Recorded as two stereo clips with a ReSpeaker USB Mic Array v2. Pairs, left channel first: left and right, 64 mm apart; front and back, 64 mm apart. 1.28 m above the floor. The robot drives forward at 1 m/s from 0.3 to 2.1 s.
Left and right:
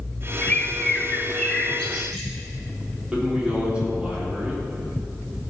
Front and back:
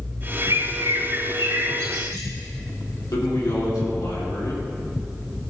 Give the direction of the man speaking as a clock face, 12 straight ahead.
1 o'clock.